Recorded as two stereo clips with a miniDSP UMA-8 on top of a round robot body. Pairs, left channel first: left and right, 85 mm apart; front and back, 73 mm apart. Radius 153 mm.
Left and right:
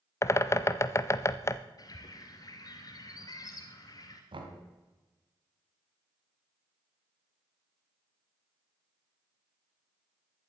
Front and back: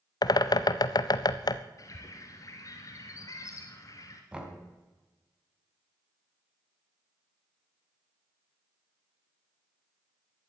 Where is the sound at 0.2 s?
30° left, 0.6 m.